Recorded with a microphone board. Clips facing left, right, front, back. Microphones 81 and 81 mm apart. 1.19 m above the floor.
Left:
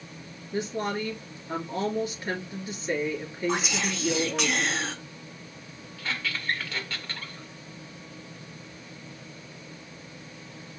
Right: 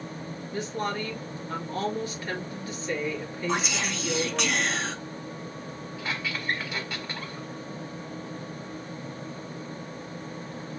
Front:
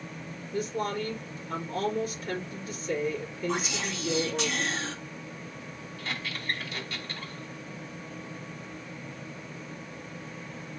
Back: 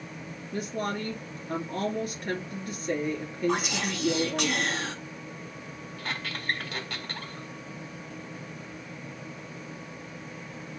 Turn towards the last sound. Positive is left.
turn(degrees=-165)